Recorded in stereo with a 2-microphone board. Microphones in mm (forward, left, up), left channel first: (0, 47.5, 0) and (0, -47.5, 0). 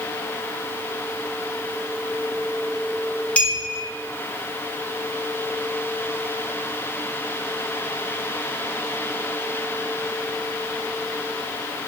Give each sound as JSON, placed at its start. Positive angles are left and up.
{"t": 3.4, "sound": "a clink", "side_deg": 15, "distance_m": 0.5}